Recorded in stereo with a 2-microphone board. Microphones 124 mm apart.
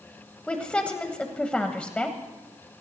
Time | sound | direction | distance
0.5 | a woman speaking | 10° left (ahead or behind) | 1.1 m